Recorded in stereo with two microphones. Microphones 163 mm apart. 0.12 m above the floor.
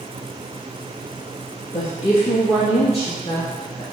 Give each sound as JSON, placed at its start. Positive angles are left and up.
{"t": 1.7, "sound": "a woman speaking", "side_deg": 60, "distance_m": 2.5}